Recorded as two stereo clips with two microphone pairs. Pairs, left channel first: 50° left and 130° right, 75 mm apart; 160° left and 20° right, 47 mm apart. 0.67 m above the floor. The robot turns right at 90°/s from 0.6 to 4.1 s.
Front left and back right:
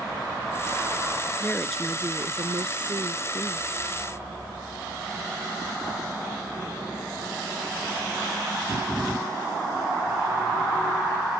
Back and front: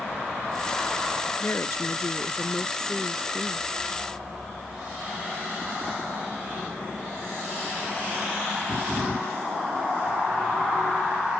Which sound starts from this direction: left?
A woman speaking, at 1.4 s.